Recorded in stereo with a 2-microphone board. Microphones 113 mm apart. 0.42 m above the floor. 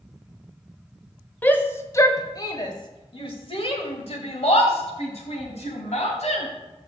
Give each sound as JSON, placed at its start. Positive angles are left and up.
{"t": 1.4, "sound": "a shout", "side_deg": 15, "distance_m": 1.4}